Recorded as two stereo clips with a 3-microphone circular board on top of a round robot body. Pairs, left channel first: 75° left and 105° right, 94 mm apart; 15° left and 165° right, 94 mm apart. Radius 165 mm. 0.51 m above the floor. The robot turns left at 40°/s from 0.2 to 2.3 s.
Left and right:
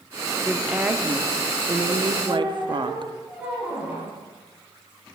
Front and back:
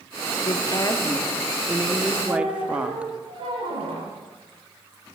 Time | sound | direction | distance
0.5 | a woman speaking | 15° right | 2 m
2.2 | a squeak | straight behind | 9.5 m